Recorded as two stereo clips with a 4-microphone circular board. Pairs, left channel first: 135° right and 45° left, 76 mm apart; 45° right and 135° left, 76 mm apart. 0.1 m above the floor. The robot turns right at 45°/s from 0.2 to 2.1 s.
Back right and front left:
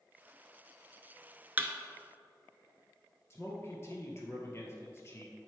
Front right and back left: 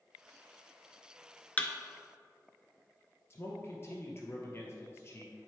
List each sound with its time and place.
1.6 s a thud: 5° left, 0.7 m; by 1.7 s 10° left, 0.7 m
3.3 s a man speaking: 90° right, 1.9 m